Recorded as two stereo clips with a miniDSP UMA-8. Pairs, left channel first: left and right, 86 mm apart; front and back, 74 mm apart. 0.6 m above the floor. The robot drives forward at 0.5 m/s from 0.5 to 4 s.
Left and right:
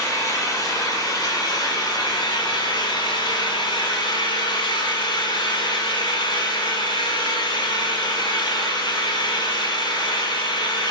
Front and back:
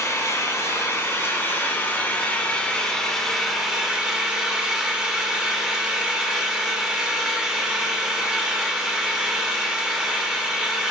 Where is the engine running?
45° left, 2.5 m; by 10.9 s 100° left, 1.8 m.